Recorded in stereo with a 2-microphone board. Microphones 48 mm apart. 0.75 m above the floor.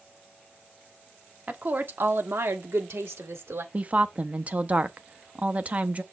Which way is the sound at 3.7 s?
35° right (ahead or behind).